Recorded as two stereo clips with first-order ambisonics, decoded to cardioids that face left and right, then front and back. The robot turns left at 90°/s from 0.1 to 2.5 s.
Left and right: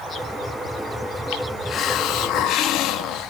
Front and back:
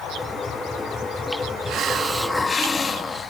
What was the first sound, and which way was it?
A hiss, 145° left.